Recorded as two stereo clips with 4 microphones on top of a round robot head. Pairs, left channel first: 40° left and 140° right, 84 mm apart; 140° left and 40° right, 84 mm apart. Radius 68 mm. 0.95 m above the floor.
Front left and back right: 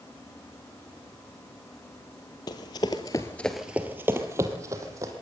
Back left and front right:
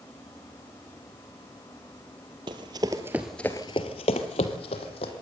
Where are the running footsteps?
5° right, 1.5 m; by 5.1 s 160° left, 2.5 m.